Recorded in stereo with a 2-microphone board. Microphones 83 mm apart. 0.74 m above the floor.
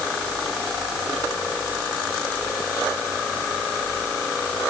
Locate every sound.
Only background noise.